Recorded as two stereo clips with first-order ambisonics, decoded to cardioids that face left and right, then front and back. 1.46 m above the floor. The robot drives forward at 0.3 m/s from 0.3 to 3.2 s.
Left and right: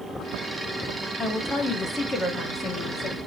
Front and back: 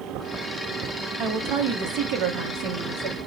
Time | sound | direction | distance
1.2 | a woman speaking | 150° left | 0.6 m